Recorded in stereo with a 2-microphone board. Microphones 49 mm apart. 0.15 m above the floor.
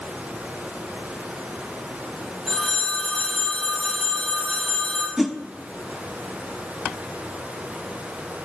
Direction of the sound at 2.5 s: 5° right (ahead or behind).